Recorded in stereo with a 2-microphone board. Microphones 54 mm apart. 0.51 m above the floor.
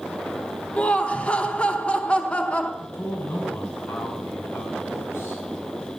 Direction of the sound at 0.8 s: 20° left (ahead or behind).